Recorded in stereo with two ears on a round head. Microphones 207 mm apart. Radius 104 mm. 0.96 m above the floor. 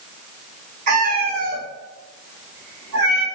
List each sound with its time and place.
0.9 s a cat meowing: 30° right (ahead or behind), 0.8 m; by 3.2 s 70° right (ahead or behind), 1.8 m